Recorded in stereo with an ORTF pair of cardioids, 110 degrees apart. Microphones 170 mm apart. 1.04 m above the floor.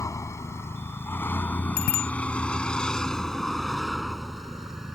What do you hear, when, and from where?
0.0 s a vehicle: 20° left; by 5.0 s 5° right
1.8 s a bicycle bell: 65° left